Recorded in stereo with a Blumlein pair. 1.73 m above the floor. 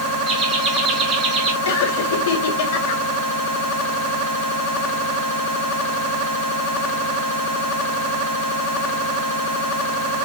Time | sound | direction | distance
0.3 | laughter | 25° right | 5 m
1.6 | laughter | 55° left | 3.5 m